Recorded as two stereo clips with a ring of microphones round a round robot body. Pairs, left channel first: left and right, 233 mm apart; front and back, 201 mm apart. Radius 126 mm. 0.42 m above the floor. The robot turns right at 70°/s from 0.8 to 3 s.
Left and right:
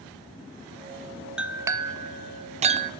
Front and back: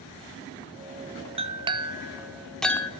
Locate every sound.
1.4 s a clink: 170° right, 0.5 m; by 2.9 s 65° right, 0.5 m